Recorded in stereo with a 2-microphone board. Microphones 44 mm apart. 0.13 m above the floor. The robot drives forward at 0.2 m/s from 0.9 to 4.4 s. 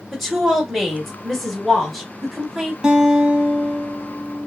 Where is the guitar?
20° right (ahead or behind), 1.1 m; by 4.5 s 15° right (ahead or behind), 1.4 m.